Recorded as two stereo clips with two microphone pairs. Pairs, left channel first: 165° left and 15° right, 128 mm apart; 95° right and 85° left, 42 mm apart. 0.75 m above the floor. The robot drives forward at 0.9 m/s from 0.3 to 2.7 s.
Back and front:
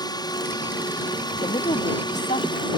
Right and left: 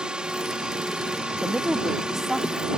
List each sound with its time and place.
0.0 s a drone: 135° left; by 2.8 s 140° left
1.4 s a woman speaking: 150° left; by 2.7 s 170° left